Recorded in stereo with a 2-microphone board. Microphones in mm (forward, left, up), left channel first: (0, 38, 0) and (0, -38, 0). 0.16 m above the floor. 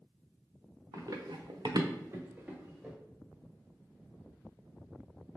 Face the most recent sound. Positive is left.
turn(degrees=-15)  # may be behind; listen again after turning